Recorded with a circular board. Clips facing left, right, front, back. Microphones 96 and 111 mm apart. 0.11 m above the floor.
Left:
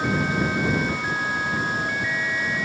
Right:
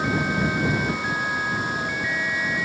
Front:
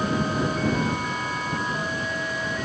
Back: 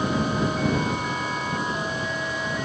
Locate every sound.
Only background noise.